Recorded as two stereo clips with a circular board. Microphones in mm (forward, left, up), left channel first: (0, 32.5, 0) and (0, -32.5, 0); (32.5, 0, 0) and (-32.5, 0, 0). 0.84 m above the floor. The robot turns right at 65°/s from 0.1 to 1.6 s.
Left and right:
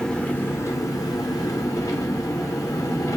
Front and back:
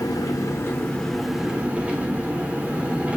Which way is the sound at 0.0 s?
15° left.